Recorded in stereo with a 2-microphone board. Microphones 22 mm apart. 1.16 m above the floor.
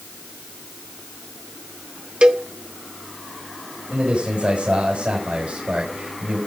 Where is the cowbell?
55° right (ahead or behind), 1.1 m.